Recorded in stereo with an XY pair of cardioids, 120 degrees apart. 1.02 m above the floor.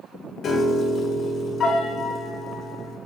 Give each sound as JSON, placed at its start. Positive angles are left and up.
{"t": 0.4, "sound": "a piano", "azimuth_deg": 45, "distance_m": 1.0}